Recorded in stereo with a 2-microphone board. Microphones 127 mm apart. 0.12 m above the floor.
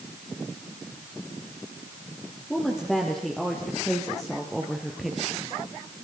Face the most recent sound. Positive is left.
turn(degrees=0)  # may be behind; listen again after turning